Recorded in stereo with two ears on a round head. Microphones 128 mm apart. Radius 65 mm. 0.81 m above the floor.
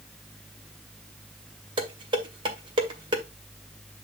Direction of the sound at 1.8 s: 35° right (ahead or behind).